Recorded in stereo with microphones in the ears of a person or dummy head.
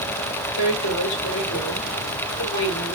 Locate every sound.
0.6 s a woman speaking: 30° left (ahead or behind), 3.5 m